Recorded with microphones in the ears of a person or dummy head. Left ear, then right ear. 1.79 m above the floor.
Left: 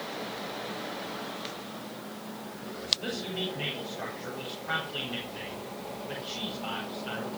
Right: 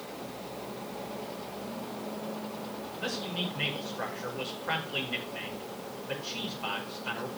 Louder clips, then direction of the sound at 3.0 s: Even; 45° right (ahead or behind).